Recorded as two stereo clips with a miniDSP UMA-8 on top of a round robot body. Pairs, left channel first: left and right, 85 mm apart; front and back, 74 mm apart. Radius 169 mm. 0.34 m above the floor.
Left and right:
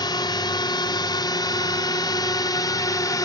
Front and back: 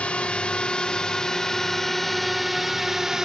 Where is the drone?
75° left; by 3.2 s 100° left.